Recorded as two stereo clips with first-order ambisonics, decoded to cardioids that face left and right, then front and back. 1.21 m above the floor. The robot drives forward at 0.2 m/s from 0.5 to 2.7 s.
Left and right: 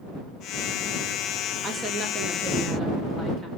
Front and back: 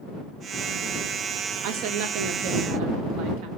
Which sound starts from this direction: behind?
A woman speaking, at 1.6 s.